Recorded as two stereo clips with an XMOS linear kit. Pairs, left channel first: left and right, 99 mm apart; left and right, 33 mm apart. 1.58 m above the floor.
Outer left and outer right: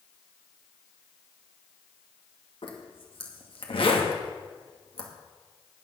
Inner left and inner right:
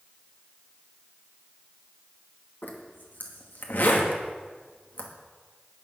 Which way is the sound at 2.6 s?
65° left (ahead or behind).